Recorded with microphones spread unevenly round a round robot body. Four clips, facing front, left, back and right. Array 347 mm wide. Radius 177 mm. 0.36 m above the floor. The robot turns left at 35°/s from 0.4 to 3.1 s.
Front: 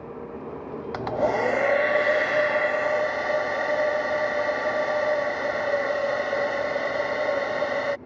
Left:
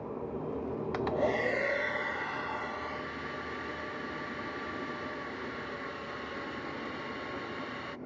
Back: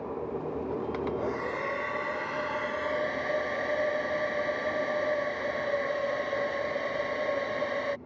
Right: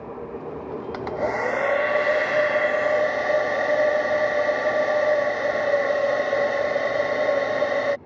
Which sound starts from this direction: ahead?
A hair dryer, at 0.9 s.